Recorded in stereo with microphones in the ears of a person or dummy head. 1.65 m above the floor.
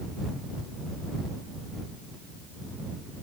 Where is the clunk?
No clunk in this recording.